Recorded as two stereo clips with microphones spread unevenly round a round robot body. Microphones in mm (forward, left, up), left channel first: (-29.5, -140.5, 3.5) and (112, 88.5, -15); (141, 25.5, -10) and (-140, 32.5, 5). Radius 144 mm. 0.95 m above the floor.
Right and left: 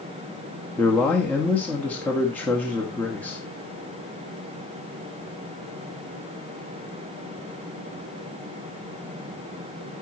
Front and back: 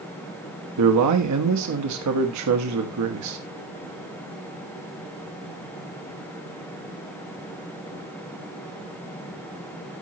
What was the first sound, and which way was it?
A man speaking, 155° left.